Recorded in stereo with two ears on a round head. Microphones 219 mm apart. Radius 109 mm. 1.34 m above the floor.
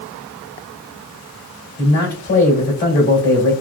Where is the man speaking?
45° left (ahead or behind), 2.5 m.